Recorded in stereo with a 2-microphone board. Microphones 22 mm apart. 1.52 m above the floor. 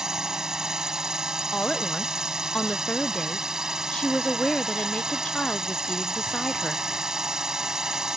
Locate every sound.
0.0 s a drone: 30° right (ahead or behind)
1.5 s a woman speaking: 45° left (ahead or behind)